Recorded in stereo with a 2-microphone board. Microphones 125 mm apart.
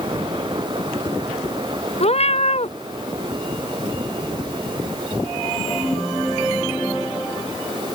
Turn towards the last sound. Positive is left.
turn(degrees=55)  # may be behind; listen again after turning